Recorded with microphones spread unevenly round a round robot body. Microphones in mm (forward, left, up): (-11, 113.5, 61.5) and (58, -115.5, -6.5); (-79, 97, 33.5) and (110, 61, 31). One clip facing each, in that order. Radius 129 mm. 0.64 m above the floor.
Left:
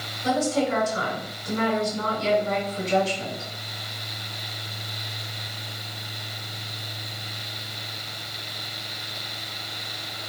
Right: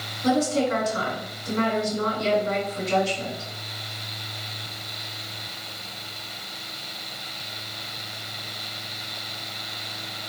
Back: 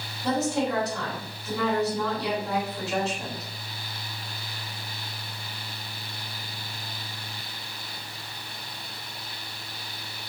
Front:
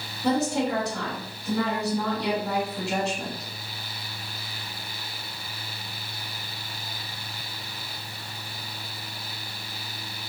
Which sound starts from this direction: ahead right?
A woman speaking, at 0.2 s.